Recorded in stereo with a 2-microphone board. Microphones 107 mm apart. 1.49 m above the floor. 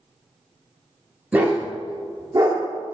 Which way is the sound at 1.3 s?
15° right (ahead or behind).